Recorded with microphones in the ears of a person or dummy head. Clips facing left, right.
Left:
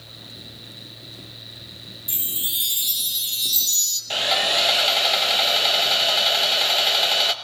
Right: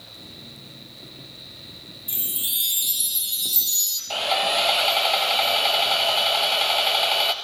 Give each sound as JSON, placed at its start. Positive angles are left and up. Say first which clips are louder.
{"t": 2.1, "sound": "a chime", "louder": "even", "side_deg": 10, "distance_m": 1.7}
{"t": 4.1, "sound": "sawing", "louder": "right 1 dB", "side_deg": 25, "distance_m": 1.3}